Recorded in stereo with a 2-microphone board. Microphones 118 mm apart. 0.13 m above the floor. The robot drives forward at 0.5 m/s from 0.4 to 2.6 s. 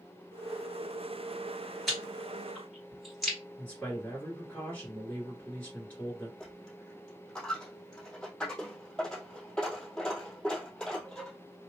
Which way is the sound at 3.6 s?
10° left (ahead or behind).